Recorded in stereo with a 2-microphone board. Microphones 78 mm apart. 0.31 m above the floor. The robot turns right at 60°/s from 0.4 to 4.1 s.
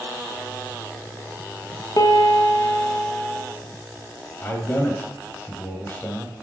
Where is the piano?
85° left, 0.6 m; by 3.4 s 175° left, 0.6 m.